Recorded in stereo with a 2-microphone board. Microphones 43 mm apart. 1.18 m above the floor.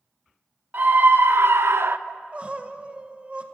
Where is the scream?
50° right (ahead or behind), 1.3 m; by 2.0 s 55° right (ahead or behind), 0.6 m.